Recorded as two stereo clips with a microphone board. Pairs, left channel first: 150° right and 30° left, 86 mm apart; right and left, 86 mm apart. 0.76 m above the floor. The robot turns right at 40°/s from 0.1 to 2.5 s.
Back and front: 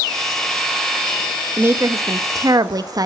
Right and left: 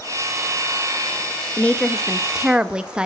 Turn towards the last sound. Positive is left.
turn(degrees=15)